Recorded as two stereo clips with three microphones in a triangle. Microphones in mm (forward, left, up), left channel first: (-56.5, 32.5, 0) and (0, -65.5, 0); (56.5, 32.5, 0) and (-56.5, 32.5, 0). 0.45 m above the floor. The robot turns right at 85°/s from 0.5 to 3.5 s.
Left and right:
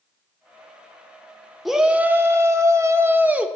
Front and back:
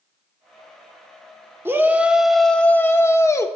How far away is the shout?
About 0.7 m.